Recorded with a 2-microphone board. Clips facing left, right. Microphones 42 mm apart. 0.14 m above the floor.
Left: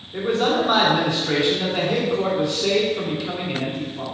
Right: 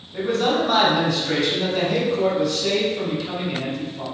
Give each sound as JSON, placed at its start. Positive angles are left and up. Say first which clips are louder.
{"t": 0.1, "sound": "a man speaking", "louder": "even", "side_deg": 25, "distance_m": 1.5}